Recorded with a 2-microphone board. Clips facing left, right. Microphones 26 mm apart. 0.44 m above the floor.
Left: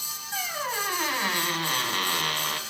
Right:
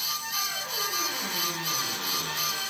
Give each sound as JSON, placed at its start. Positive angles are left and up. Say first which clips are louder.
{"t": 0.3, "sound": "a squeak", "louder": "left 1 dB", "side_deg": 70, "distance_m": 2.0}